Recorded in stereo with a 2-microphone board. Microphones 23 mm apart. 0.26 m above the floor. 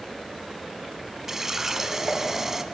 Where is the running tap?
15° right (ahead or behind), 1.3 m.